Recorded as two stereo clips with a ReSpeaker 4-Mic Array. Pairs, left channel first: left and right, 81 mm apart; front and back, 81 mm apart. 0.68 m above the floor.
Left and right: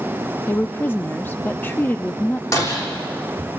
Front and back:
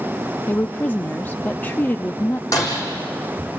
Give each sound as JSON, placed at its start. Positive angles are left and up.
{"t": 0.5, "sound": "a woman speaking", "azimuth_deg": 50, "distance_m": 0.6}
{"t": 2.5, "sound": "breaking glass", "azimuth_deg": 45, "distance_m": 6.5}